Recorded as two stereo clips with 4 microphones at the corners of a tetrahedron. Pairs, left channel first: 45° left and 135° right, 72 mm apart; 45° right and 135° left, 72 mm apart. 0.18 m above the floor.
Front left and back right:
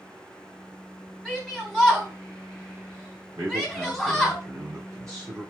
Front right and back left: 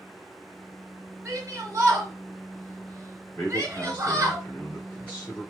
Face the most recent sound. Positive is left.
turn(degrees=-110)